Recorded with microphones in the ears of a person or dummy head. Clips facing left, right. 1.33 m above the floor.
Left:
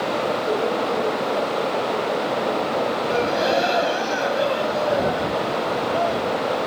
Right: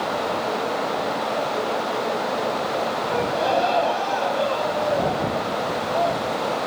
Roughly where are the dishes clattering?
I don't hear dishes clattering.